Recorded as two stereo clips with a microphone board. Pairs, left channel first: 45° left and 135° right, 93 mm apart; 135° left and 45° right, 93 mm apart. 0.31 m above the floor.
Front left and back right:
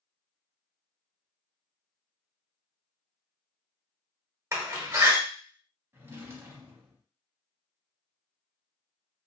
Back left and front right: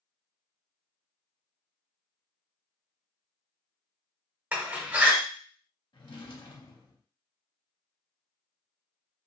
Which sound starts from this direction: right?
A door slam, at 4.5 s.